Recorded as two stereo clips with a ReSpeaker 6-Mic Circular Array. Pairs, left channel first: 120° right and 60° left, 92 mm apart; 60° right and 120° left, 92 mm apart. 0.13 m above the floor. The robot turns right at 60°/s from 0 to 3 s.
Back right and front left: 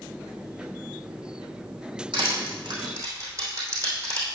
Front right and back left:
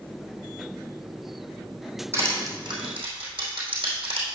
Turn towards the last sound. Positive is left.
turn(degrees=110)